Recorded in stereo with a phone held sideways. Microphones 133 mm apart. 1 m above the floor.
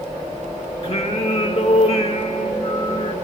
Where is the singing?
45° left (ahead or behind), 1.2 m.